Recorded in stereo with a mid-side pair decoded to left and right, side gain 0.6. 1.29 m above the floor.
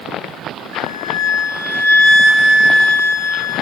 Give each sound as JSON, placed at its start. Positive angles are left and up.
{"t": 0.7, "sound": "a flute", "azimuth_deg": -60, "distance_m": 3.5}